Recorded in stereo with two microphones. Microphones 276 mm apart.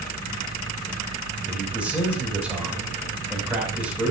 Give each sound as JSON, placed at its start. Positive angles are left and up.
{"t": 1.4, "sound": "a man speaking", "side_deg": -5, "distance_m": 6.0}